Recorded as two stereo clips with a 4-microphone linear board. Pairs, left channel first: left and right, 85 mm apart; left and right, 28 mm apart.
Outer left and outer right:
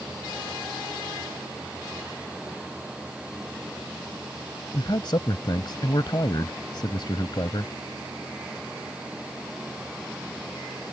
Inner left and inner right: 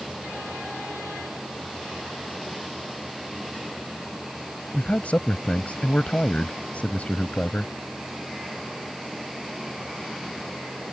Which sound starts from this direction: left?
A man speaking, at 4.7 s.